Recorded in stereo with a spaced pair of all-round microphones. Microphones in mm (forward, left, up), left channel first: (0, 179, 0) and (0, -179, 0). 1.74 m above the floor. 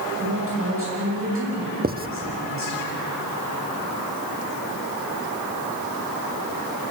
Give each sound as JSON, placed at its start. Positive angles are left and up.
{"t": 0.2, "sound": "a woman speaking", "side_deg": -35, "distance_m": 8.0}
{"t": 1.8, "sound": "writing", "side_deg": -25, "distance_m": 0.8}